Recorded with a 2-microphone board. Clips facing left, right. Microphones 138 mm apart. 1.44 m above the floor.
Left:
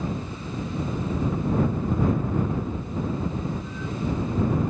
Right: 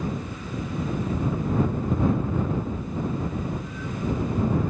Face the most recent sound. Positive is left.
No sound to turn to.